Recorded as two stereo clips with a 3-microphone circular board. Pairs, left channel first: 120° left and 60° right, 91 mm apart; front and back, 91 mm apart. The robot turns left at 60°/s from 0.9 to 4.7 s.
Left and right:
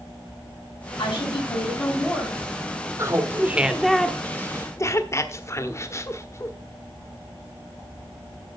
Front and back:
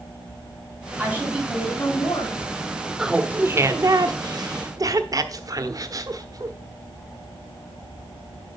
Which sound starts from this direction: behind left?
A woman speaking, at 1.0 s.